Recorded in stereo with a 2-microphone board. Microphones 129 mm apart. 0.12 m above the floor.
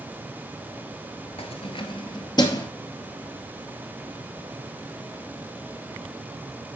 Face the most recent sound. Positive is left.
turn(degrees=30)  # may be behind; listen again after turning